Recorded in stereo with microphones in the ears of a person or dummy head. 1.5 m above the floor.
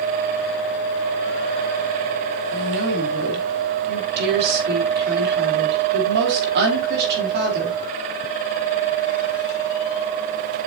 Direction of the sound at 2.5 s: 60° right (ahead or behind).